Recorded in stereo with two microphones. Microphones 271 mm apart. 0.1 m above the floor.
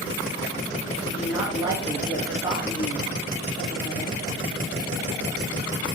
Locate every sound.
1.1 s a woman speaking: 15° right (ahead or behind), 2.5 m